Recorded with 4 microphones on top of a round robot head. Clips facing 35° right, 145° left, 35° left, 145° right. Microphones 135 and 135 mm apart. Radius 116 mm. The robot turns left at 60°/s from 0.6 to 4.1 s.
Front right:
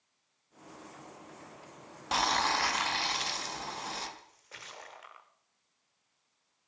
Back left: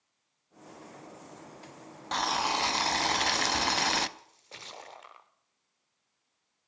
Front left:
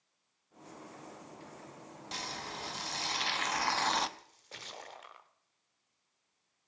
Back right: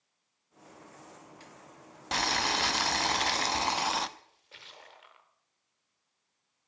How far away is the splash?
About 0.6 m.